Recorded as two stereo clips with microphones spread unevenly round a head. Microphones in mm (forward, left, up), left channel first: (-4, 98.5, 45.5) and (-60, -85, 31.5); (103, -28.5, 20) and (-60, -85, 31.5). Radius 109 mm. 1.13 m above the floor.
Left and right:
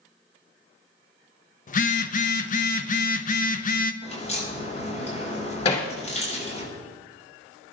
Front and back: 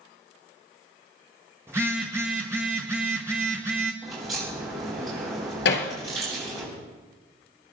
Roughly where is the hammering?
Ahead.